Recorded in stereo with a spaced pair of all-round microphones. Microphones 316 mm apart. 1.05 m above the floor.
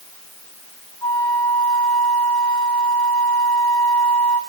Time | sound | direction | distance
1.0 | a flute | 65° right (ahead or behind) | 6.5 m